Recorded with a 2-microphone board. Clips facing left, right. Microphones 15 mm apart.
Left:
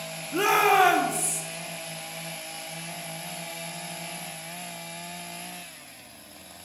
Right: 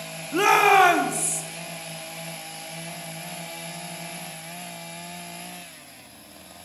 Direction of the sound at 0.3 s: 20° right (ahead or behind).